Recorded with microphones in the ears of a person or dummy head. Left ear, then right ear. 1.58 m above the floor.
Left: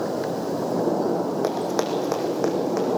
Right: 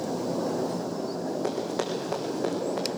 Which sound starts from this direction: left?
Running footsteps, at 1.4 s.